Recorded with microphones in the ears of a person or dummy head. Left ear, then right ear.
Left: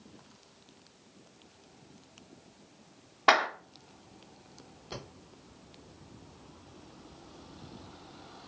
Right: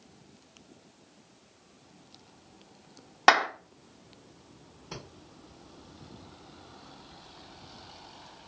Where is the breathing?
50° right (ahead or behind), 1.1 m.